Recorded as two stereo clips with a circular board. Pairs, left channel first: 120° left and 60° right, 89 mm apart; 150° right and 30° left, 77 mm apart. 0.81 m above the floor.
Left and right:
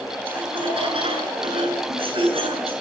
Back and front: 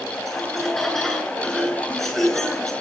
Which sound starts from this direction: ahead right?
Laughter, at 0.3 s.